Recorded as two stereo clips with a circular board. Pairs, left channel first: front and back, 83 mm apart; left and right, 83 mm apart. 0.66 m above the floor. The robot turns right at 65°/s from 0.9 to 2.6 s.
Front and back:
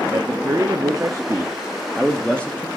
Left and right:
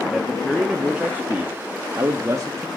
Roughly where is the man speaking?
Behind.